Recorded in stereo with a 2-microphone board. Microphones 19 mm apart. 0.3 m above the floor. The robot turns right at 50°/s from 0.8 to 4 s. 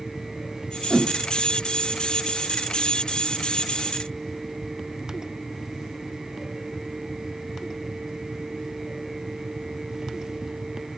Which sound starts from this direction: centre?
A whoosh, at 0.9 s.